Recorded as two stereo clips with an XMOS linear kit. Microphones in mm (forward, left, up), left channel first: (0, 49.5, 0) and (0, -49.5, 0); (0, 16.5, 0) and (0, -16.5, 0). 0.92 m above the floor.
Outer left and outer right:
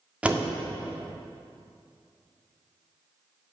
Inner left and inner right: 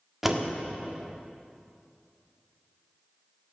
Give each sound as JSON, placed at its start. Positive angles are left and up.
{"t": 0.2, "sound": "a door slam", "side_deg": -10, "distance_m": 1.6}